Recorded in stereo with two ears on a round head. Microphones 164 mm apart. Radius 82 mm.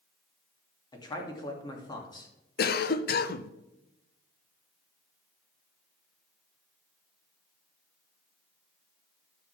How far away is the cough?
About 0.8 m.